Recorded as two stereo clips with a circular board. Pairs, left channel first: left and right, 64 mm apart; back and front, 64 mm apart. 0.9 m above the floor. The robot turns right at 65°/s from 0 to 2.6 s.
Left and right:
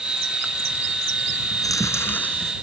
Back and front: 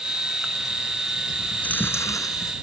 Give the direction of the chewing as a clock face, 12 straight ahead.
8 o'clock.